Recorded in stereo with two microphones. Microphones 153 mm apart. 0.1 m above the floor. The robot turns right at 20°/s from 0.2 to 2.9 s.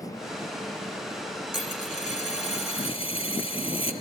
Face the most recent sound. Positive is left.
turn(degrees=40)  # may be behind; listen again after turning